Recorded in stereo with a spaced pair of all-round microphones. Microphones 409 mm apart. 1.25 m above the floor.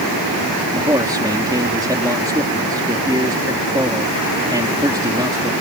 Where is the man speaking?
10° right (ahead or behind).